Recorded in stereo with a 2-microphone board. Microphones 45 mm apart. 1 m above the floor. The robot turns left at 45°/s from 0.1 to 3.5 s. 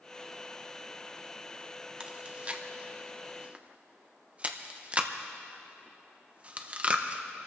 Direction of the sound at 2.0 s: 20° right (ahead or behind).